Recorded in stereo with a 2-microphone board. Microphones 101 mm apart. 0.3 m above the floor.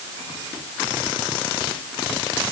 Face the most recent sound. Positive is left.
No sound to turn to.